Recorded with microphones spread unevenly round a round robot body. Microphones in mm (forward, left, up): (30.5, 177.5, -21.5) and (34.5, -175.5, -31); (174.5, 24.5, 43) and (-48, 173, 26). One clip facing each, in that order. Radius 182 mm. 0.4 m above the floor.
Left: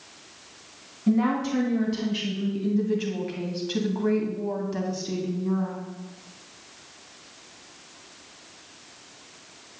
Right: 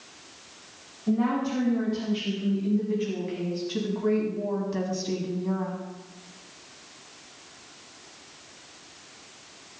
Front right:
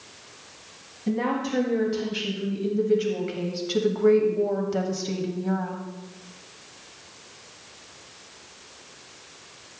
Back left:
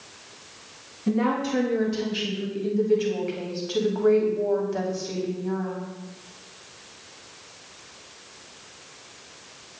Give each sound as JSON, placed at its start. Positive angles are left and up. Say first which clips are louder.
{"t": 1.1, "sound": "a woman speaking", "louder": "left 2 dB, back left 2 dB", "azimuth_deg": 65, "distance_m": 3.5}